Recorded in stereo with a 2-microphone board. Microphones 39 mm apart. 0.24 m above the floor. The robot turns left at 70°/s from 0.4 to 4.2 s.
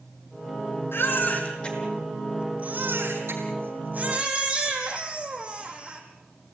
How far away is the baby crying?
About 5 m.